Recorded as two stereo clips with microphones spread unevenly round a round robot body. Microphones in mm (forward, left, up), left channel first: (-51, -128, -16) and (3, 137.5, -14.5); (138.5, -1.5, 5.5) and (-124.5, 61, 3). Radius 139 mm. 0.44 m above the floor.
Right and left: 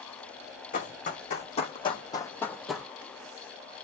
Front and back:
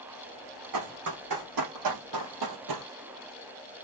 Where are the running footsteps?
165° right, 2 m; by 2.9 s 160° left, 0.9 m.